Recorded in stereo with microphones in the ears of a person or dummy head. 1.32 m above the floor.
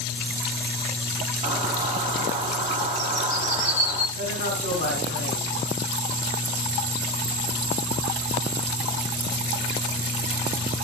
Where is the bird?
40° right (ahead or behind), 1.8 m.